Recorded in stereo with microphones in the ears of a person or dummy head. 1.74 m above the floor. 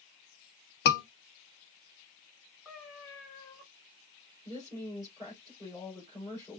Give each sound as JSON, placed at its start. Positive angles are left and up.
{"t": 0.8, "sound": "a scream", "side_deg": 65, "distance_m": 1.3}
{"t": 2.6, "sound": "a cat meowing", "side_deg": 10, "distance_m": 3.0}
{"t": 4.5, "sound": "a woman speaking", "side_deg": 20, "distance_m": 5.0}